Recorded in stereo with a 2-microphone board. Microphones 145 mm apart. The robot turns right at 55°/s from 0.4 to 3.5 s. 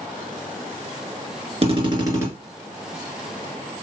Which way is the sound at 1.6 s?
55° right.